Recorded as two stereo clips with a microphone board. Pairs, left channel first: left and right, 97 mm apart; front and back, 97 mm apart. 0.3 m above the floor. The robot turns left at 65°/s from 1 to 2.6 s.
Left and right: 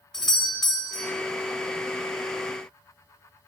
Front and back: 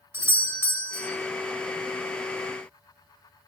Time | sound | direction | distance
0.1 | a doorbell | 170° left | 1.8 m